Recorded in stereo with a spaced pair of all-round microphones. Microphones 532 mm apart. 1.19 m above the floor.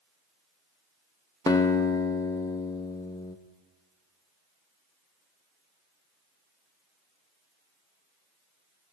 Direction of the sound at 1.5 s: 5° left (ahead or behind).